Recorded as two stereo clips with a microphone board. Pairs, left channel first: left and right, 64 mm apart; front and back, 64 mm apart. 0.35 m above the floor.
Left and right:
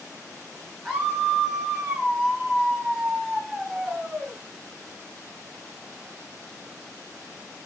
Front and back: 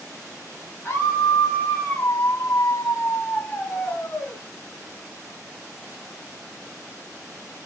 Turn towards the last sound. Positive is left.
turn(degrees=-35)